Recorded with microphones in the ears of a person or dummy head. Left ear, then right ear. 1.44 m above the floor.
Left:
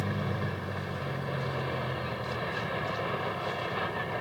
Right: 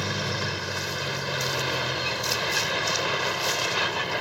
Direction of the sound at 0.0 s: 80° right.